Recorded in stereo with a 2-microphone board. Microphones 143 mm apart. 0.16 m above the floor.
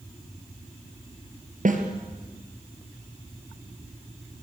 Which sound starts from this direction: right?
A snare drum, at 1.6 s.